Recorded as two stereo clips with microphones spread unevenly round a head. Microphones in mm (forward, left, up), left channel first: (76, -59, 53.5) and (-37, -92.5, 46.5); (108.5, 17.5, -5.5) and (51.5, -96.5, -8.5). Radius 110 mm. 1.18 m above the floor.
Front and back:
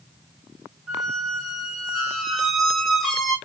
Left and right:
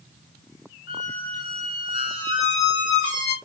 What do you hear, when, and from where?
0.9 s a squeak: 105° left, 1.3 m